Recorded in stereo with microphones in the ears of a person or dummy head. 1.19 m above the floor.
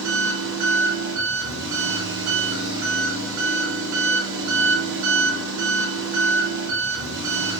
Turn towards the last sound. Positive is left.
turn(degrees=-85)